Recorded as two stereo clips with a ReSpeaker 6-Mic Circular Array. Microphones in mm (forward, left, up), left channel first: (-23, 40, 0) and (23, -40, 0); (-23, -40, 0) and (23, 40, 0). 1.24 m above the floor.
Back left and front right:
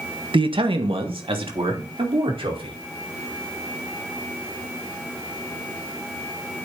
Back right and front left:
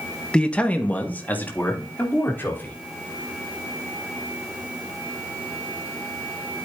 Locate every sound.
0.3 s a man speaking: 40° right, 1.3 m; by 2.8 s 50° right, 5 m